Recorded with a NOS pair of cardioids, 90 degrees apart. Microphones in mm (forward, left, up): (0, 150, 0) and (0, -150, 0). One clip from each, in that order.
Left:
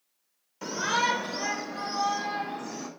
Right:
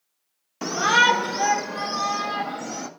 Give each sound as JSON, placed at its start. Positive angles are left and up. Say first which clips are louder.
{"t": 0.6, "sound": "a shout", "louder": "right 9 dB", "azimuth_deg": -60, "distance_m": 1.3}